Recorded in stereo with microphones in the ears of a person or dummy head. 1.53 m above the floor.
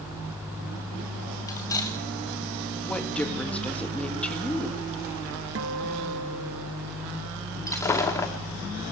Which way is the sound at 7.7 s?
10° left (ahead or behind).